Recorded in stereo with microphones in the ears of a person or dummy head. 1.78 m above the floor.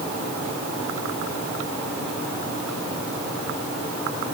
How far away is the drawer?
No drawer in this recording.